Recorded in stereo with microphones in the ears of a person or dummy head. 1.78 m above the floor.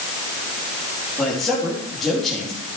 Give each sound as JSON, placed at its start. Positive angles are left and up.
{"t": 1.2, "sound": "a man speaking", "side_deg": 0, "distance_m": 3.5}